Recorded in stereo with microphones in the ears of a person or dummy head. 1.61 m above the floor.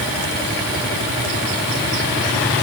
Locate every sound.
Only background noise.